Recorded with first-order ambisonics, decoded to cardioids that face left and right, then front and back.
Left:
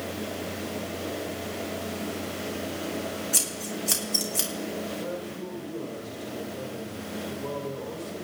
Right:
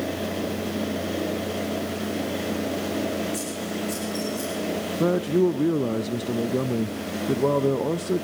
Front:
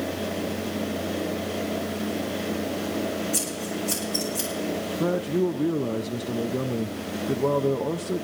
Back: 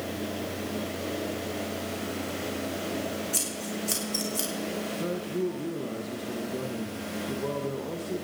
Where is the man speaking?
65° right, 0.5 m.